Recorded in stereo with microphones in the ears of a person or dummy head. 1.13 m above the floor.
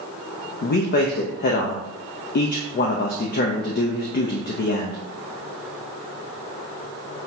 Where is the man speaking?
45° left (ahead or behind), 0.5 m.